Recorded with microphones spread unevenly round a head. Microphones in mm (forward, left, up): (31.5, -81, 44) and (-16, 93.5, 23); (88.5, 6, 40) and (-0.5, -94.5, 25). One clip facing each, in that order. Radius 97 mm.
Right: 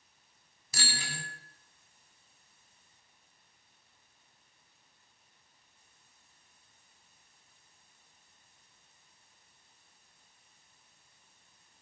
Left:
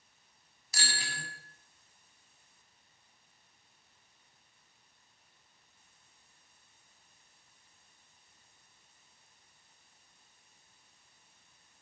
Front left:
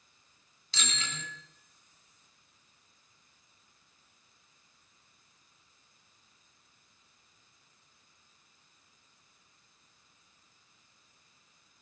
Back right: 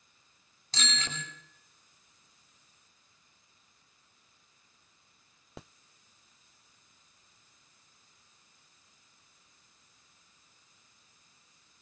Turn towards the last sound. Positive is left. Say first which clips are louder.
# right 2 dB, back right 2 dB
turn(degrees=-85)